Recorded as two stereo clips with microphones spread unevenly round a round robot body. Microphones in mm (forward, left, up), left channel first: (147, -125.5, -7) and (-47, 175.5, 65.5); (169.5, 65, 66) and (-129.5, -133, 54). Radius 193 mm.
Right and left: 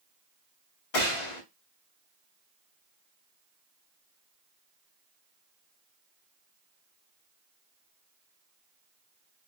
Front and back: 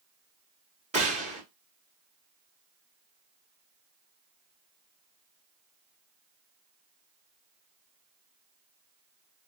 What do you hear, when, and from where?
0.9 s a gunshot: 75° right, 1.7 m